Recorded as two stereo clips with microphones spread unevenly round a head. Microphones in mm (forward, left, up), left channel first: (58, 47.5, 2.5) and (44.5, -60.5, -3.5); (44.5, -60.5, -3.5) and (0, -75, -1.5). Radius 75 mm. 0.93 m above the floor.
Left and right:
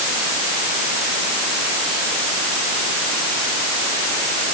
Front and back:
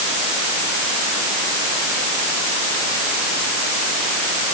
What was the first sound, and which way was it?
Only background noise.